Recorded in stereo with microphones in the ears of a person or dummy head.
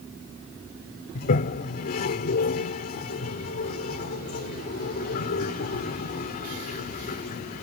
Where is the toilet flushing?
50° left (ahead or behind).